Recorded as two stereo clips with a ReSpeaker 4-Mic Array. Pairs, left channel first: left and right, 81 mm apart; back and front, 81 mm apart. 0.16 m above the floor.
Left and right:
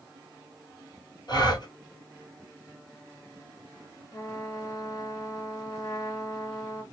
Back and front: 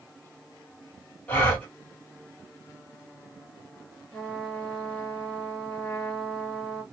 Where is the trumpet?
115° left, 2 m.